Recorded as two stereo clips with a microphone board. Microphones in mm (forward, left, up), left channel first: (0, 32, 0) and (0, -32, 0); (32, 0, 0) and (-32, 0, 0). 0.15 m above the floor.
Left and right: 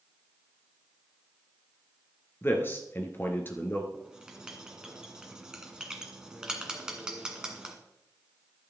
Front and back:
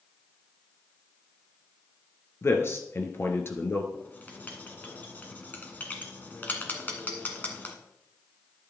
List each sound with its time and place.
2.4 s a man speaking: 40° left, 1.9 m
3.9 s writing: 25° right, 1.9 m